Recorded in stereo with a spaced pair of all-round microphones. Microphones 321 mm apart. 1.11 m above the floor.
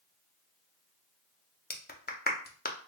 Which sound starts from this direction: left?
A clap, at 1.7 s.